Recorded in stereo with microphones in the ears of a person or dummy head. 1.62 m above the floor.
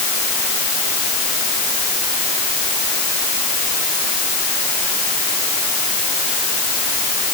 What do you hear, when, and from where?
Only background noise.